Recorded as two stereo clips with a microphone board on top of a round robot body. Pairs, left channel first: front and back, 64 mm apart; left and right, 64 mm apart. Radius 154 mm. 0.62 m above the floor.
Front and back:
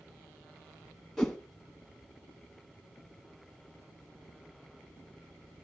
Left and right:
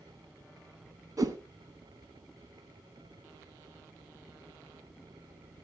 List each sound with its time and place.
1.2 s a whoosh: 90° right, 1.7 m